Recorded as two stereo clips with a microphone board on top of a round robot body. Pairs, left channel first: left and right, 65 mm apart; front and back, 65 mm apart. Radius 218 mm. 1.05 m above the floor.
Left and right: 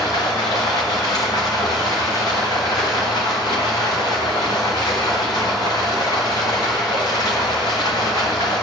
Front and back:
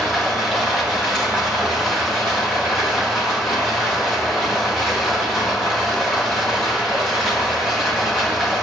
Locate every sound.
0.0 s running water: 85° left, 1.1 m